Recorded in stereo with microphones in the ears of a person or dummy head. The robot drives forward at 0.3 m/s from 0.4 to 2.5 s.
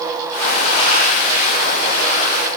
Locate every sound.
Only background noise.